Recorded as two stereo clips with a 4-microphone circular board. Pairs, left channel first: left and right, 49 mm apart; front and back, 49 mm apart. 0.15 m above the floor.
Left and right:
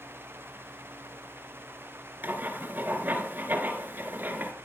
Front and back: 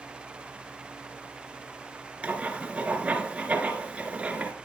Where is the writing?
130° right, 2 m.